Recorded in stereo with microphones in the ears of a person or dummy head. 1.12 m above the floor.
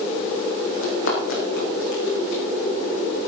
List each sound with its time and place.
0.8 s running footsteps: 75° left (ahead or behind), 4.5 m